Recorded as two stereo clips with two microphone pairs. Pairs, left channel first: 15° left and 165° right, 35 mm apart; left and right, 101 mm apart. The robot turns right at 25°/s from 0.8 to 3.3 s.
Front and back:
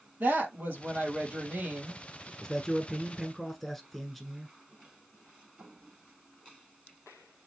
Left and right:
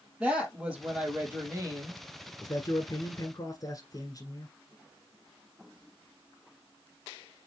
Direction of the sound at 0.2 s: 170° right.